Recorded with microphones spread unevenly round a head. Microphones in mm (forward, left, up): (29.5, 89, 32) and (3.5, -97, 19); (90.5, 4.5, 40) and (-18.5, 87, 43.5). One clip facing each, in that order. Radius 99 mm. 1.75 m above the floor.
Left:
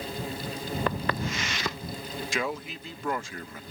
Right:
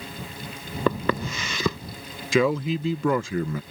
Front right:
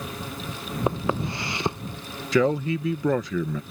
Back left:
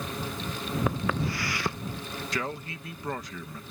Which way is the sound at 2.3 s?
80° right.